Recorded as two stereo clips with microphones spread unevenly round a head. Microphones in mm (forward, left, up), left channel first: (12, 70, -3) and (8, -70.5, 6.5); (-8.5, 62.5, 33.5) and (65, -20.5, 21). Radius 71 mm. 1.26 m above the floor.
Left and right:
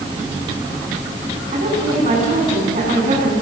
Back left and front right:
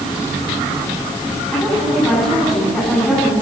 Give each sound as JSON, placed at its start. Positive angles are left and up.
{"t": 1.5, "sound": "a woman speaking", "azimuth_deg": -140, "distance_m": 10.0}